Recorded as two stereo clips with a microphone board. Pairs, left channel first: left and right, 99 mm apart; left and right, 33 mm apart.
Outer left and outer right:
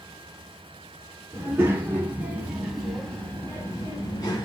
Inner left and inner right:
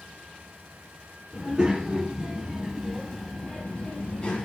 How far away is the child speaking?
About 1.7 m.